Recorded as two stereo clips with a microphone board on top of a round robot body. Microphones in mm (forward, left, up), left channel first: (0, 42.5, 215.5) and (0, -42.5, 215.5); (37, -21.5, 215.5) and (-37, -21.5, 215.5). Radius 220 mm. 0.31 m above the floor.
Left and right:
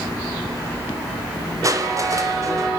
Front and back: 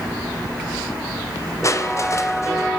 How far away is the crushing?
About 3 m.